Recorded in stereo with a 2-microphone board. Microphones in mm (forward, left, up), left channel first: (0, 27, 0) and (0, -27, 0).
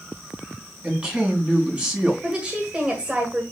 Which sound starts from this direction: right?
A woman speaking, at 0.8 s.